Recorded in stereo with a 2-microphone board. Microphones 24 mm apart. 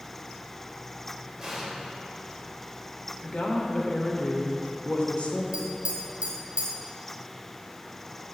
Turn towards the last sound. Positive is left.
turn(degrees=-50)  # may be behind; listen again after turning